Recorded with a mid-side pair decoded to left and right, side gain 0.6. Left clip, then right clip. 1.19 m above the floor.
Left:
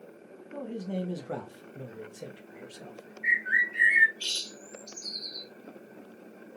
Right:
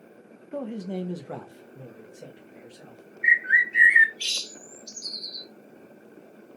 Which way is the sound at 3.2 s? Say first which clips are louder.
Right 6 dB; 40° right.